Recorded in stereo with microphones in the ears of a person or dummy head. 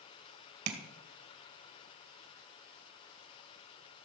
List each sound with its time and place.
0.7 s tapping: 70° right (ahead or behind), 2 m